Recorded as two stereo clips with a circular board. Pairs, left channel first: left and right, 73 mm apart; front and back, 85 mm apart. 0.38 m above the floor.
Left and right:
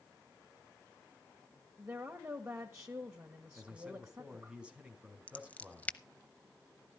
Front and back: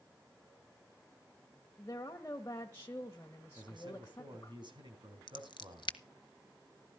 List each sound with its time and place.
1.8 s a woman speaking: 45° right, 1.5 m
3.5 s a man speaking: 165° right, 3.5 m
5.3 s scissors: 20° left, 0.7 m